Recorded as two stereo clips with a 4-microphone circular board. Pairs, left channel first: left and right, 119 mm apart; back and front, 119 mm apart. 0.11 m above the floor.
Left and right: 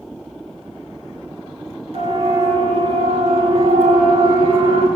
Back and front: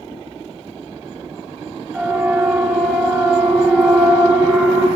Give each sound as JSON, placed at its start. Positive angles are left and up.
{"t": 1.9, "sound": "a siren", "azimuth_deg": -85, "distance_m": 7.0}